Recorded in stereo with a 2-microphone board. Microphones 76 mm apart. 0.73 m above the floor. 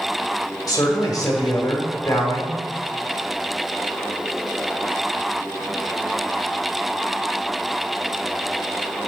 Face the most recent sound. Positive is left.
turn(degrees=55)  # may be behind; listen again after turning